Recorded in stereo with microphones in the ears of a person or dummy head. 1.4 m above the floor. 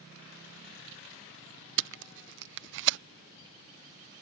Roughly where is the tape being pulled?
Right.